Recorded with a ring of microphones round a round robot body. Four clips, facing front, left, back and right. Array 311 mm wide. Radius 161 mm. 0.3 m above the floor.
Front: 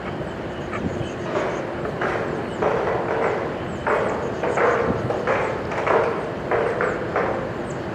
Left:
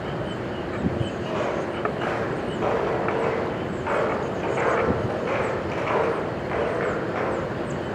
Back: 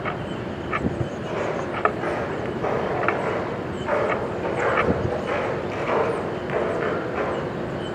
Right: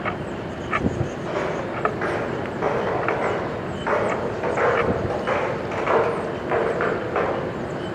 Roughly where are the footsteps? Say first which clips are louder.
Right 1 dB, front 3 dB; ahead.